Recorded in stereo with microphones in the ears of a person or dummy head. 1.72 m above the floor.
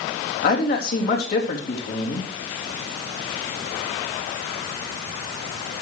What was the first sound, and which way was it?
A man speaking, 55° left (ahead or behind).